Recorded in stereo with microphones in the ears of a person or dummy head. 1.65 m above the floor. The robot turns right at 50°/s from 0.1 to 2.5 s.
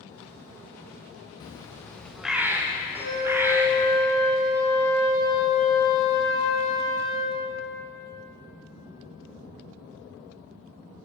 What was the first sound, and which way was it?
A bird, 140° left.